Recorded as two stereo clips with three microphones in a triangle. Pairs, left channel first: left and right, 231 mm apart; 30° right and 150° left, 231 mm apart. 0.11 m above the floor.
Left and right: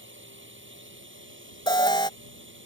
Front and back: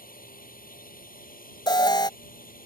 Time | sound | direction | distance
0.0 | a drone | 75° right | ?
1.7 | an alarm | 30° left | ?